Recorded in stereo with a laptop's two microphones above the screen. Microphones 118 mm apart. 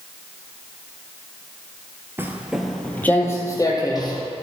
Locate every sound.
2.2 s footsteps: 20° right (ahead or behind), 1.3 m; by 4.2 s 35° left (ahead or behind), 2.5 m